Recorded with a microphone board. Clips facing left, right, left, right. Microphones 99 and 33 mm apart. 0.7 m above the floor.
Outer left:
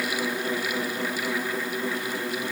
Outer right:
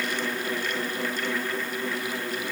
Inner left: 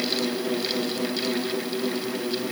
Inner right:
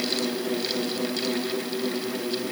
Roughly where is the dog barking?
No dog barking in this recording.